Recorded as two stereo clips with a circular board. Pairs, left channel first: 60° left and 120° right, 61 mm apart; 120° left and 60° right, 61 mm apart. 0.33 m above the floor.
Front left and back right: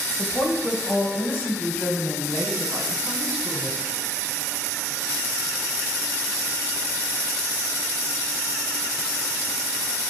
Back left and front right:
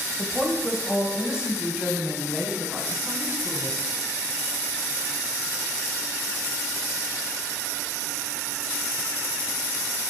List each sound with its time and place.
0.2 s a woman speaking: 35° left, 1.6 m; by 4.0 s 10° right, 3.5 m